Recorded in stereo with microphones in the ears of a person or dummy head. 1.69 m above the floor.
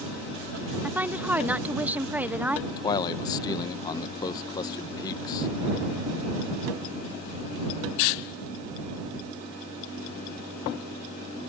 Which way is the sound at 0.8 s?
5° right (ahead or behind).